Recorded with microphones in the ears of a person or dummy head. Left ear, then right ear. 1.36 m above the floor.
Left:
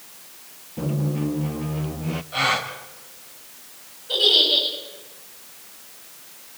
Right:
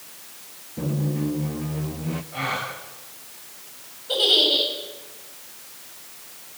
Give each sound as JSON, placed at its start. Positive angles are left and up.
{"t": 0.8, "sound": "a squeak", "side_deg": 15, "distance_m": 0.6}
{"t": 2.3, "sound": "a gasp", "side_deg": 45, "distance_m": 4.0}
{"t": 4.1, "sound": "a giggle", "side_deg": -15, "distance_m": 8.5}